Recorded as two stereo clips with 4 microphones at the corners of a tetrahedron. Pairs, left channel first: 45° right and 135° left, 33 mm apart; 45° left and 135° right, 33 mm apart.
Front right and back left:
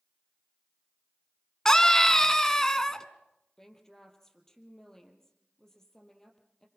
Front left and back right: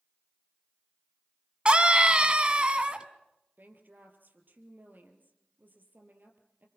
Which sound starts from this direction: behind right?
A woman speaking, at 3.6 s.